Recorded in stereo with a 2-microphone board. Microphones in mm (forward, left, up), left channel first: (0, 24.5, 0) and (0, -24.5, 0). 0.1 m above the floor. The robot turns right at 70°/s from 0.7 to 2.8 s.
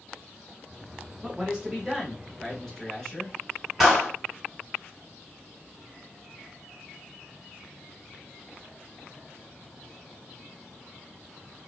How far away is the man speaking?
About 1.1 m.